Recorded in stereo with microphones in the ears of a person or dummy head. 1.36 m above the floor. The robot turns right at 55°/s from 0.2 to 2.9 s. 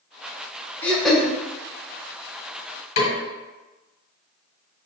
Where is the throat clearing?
5° left (ahead or behind), 0.5 m; by 1.3 s 10° right (ahead or behind), 0.5 m.